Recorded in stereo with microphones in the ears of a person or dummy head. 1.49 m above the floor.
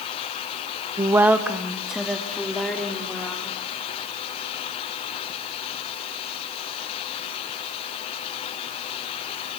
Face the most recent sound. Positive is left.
turn(degrees=5)  # may be behind; listen again after turning